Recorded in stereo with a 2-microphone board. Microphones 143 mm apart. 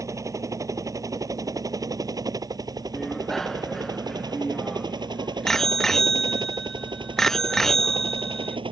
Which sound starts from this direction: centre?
A bicycle bell, at 2.9 s.